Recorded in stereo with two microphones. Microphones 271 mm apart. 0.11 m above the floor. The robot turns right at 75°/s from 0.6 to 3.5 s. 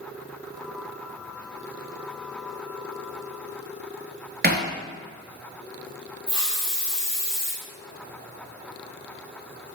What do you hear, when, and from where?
4.4 s hammering: 40° right (ahead or behind), 0.7 m
6.3 s a hiss: 5° right (ahead or behind), 1.5 m